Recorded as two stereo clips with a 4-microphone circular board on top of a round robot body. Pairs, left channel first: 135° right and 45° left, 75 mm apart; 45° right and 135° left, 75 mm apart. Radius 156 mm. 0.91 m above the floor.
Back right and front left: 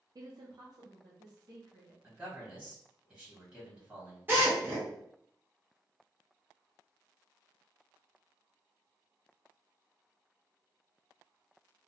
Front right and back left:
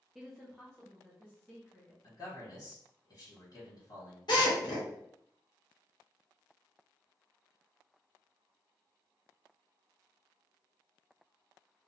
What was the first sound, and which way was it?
A woman speaking, 50° left.